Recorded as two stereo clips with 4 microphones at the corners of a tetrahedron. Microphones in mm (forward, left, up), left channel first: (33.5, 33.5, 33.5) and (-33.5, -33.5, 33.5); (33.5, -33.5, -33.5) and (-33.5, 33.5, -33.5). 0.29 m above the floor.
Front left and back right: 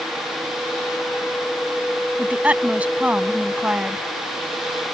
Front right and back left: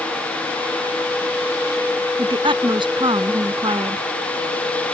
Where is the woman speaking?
150° left.